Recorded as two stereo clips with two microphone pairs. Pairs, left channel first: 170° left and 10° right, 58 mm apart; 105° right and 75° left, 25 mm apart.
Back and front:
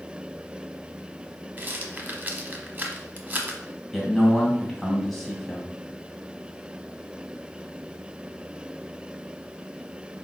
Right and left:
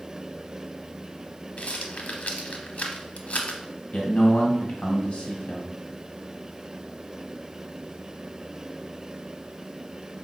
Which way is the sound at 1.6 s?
70° right.